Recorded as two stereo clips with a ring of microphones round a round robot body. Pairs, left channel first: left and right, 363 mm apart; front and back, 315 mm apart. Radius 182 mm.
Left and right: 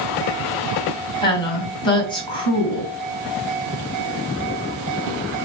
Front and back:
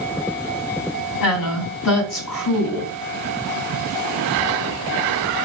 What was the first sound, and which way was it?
A woman speaking, 15° left.